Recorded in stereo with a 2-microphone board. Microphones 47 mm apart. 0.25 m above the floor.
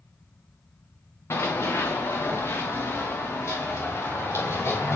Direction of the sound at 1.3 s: 80° left.